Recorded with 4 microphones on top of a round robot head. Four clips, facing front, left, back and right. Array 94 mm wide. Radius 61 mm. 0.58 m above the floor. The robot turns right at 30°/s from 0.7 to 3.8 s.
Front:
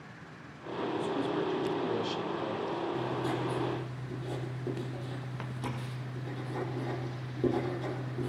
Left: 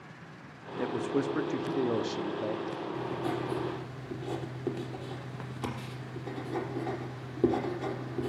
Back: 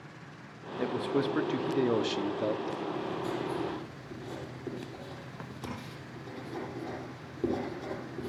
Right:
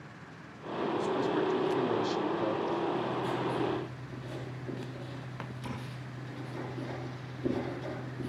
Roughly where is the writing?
Ahead left.